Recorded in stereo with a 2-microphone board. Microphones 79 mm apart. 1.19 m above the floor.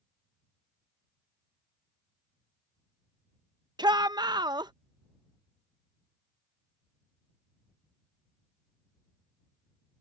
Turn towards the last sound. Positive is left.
turn(degrees=-65)  # may be behind; listen again after turning